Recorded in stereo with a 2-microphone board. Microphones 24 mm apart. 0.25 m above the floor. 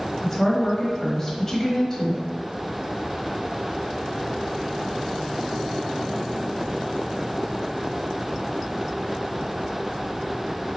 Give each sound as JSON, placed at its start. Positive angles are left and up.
{"t": 0.2, "sound": "a woman speaking", "side_deg": 20, "distance_m": 0.9}